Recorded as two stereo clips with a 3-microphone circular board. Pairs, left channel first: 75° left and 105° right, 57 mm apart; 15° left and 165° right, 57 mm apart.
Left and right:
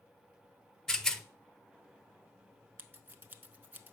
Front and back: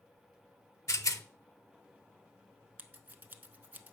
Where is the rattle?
5° right, 0.5 m.